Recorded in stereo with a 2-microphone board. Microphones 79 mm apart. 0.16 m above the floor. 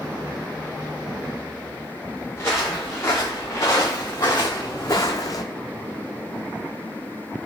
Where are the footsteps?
35° left (ahead or behind), 2.5 m; by 5.4 s 50° left (ahead or behind), 0.5 m.